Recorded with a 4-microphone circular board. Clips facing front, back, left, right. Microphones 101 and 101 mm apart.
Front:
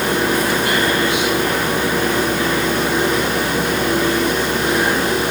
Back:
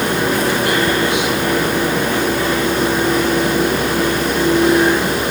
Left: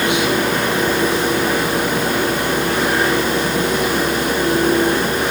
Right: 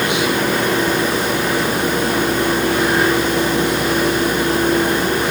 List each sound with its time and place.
Only background noise.